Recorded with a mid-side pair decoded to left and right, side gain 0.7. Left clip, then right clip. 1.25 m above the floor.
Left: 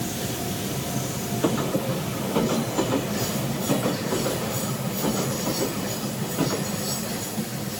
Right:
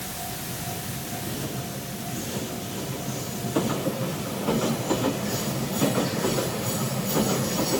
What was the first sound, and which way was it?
Only background noise.